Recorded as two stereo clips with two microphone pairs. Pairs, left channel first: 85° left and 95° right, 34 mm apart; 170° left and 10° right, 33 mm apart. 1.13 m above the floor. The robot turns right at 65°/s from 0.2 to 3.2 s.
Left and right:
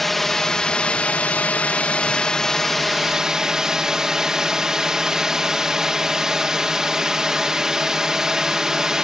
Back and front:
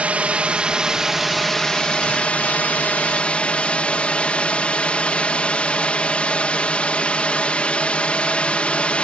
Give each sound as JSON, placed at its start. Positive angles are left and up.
{"t": 0.0, "sound": "a drone", "azimuth_deg": 5}